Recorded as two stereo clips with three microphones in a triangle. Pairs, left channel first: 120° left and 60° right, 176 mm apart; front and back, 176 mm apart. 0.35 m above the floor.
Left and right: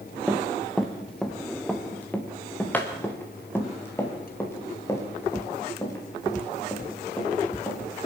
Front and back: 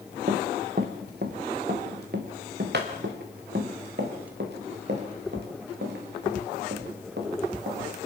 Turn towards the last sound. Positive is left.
turn(degrees=-170)